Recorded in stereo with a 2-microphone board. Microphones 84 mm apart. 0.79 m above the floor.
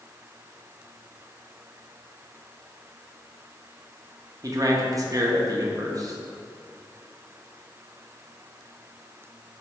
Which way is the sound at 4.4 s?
45° right (ahead or behind).